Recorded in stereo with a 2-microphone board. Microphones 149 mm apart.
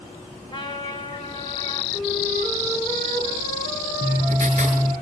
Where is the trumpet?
30° left (ahead or behind), 3.5 m.